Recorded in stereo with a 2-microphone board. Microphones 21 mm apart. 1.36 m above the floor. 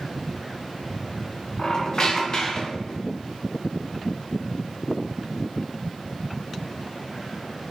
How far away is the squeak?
About 0.7 m.